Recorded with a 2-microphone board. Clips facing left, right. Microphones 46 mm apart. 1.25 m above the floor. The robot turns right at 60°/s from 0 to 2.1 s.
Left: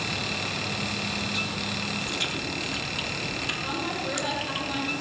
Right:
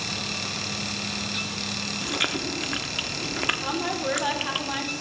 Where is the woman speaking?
40° right (ahead or behind), 3.5 m.